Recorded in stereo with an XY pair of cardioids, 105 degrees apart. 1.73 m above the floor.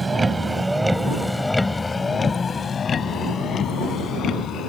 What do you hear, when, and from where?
0.0 s a vehicle: 20° right; by 4.7 s 65° left